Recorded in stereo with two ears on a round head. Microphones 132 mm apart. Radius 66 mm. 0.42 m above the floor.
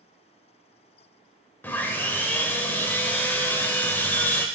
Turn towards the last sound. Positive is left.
turn(degrees=15)  # may be behind; listen again after turning